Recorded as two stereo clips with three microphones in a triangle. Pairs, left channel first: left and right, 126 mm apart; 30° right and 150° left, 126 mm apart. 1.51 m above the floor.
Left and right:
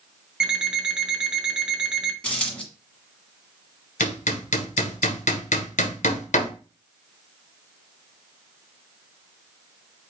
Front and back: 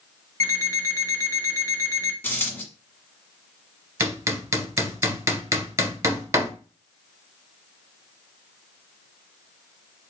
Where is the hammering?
85° left, 0.8 m.